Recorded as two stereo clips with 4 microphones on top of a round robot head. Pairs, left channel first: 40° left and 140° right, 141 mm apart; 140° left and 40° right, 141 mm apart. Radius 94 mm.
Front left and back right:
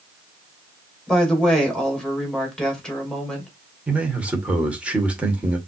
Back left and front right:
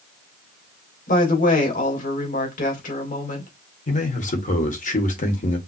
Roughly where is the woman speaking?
Behind left.